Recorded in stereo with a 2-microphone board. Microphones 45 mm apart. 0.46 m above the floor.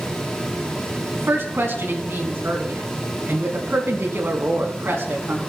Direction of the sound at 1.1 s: 65° right (ahead or behind).